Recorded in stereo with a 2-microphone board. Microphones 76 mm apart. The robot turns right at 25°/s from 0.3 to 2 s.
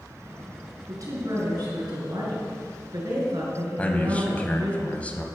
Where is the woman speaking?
45° right (ahead or behind), 3.5 m; by 4.8 s 65° right (ahead or behind), 3.5 m.